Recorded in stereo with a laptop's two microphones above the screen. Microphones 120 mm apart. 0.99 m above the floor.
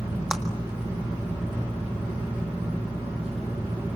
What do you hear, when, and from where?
0.3 s a clap: 5° right (ahead or behind), 1.6 m